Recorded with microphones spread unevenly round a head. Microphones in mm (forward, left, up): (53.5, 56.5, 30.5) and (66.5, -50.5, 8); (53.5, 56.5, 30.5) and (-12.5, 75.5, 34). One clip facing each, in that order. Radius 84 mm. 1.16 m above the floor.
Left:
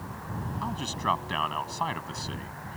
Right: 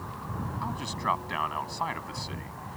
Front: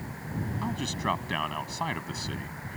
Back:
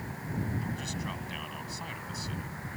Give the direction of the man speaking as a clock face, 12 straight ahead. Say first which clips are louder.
Left 1 dB, front 6 dB; 12 o'clock.